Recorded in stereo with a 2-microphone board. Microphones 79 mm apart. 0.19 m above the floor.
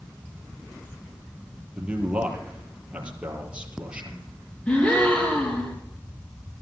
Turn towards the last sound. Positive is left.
turn(degrees=20)  # may be behind; listen again after turning